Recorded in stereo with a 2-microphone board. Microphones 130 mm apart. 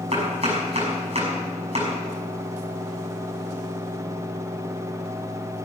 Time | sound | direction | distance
0.1 | chopping | 50° right (ahead or behind) | 6 m